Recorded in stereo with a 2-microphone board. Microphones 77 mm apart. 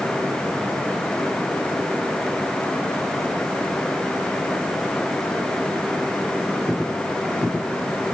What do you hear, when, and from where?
Only background noise.